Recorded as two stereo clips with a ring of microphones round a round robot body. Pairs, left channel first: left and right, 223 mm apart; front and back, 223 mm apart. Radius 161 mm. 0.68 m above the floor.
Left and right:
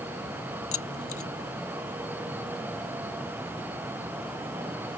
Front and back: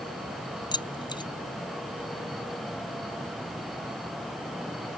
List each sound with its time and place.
0.7 s keys jangling: 70° left